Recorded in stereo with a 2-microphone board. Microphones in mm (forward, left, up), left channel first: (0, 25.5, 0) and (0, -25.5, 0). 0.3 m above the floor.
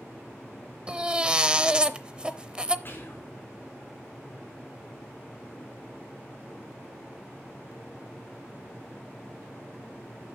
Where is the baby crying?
20° right (ahead or behind), 0.6 m.